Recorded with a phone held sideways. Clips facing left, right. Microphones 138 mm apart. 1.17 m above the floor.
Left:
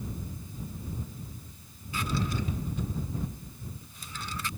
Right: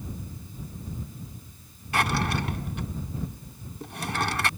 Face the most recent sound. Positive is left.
turn(degrees=-80)